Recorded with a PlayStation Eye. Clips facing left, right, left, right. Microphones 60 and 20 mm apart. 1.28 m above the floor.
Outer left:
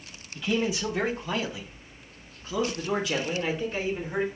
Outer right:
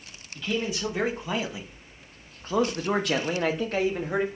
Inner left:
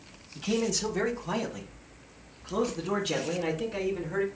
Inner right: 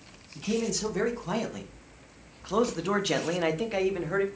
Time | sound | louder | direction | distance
0.3 | a man speaking | outer left 2 dB, inner left 1 dB | 10° left (ahead or behind) | 1.5 m